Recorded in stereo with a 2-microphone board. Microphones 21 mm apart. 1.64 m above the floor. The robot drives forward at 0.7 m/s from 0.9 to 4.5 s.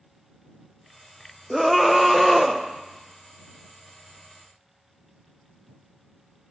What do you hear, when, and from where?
1.5 s a scream: 5° right (ahead or behind), 0.6 m; by 2.6 s centre (ahead or behind), 1.4 m